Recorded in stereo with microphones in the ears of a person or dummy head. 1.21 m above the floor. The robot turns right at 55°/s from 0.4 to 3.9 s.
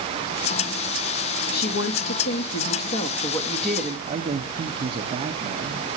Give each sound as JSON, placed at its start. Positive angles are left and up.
{"t": 1.5, "sound": "a woman speaking", "azimuth_deg": 55, "distance_m": 2.0}
{"t": 4.1, "sound": "a man speaking", "side_deg": -30, "distance_m": 1.3}